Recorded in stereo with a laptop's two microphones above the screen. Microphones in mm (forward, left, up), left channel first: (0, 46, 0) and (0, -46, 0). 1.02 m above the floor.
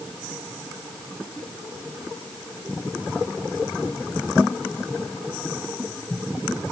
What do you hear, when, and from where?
Only background noise.